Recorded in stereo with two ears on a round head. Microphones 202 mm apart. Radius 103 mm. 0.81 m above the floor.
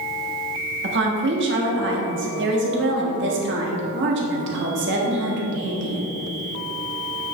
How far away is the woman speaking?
About 1.4 m.